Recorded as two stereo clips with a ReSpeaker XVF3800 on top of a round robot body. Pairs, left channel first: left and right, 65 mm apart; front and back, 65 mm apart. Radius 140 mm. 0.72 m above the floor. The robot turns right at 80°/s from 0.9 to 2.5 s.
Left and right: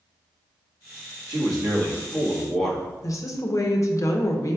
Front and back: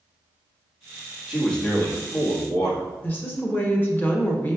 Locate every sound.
1.3 s a man speaking: 95° right, 1.5 m; by 2.9 s straight ahead, 1.5 m
3.0 s a woman speaking: 60° left, 0.8 m